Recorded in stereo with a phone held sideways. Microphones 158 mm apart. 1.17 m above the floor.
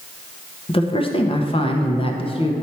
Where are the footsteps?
No footsteps in this recording.